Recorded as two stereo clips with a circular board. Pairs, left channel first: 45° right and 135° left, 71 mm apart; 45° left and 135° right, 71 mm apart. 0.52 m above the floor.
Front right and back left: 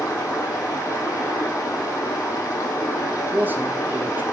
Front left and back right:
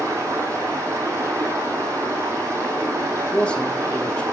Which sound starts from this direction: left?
A man speaking, at 3.3 s.